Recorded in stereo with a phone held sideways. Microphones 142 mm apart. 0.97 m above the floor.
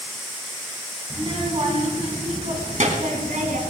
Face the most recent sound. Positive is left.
turn(degrees=-70)  # may be behind; listen again after turning